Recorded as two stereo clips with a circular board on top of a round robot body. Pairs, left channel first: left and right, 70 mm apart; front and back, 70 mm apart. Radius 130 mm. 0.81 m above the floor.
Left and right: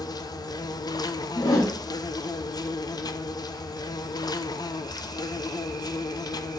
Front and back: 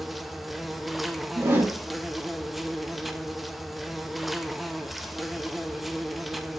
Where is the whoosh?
120° left, 1.9 m.